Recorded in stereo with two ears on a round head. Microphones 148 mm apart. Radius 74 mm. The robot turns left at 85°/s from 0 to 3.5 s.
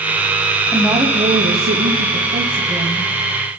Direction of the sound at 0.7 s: 5° left.